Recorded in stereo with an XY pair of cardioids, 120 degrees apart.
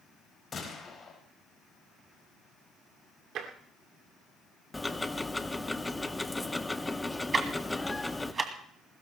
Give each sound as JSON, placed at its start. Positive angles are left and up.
{"t": 0.5, "sound": "a gunshot", "azimuth_deg": 30, "distance_m": 4.5}
{"t": 3.4, "sound": "tapping", "azimuth_deg": -65, "distance_m": 2.5}
{"t": 4.7, "sound": "ticking", "azimuth_deg": 10, "distance_m": 0.9}
{"t": 7.3, "sound": "ticking", "azimuth_deg": -30, "distance_m": 2.0}